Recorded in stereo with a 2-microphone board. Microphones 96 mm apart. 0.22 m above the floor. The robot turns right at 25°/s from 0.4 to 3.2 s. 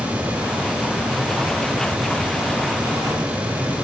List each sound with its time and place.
Only background noise.